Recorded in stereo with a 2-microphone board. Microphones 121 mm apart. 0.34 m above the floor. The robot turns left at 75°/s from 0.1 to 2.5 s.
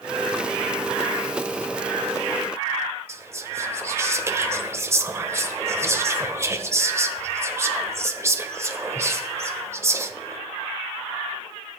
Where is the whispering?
20° right (ahead or behind), 1.2 m.